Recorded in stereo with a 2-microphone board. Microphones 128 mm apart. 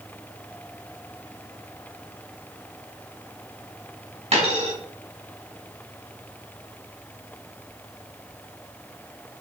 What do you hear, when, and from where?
4.3 s a dropped coin: 60° right (ahead or behind), 2.5 m